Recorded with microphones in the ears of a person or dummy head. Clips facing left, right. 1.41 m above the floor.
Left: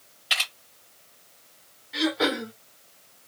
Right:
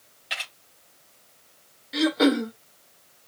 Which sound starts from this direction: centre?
A camera shutter, at 0.3 s.